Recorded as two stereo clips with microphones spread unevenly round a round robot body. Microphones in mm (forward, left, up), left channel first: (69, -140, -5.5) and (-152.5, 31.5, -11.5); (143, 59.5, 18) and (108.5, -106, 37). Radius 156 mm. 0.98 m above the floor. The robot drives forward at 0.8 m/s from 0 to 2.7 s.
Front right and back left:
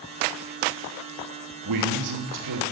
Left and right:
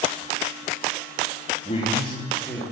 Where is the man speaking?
140° left, 1.9 m; by 2.6 s 150° left, 2.5 m.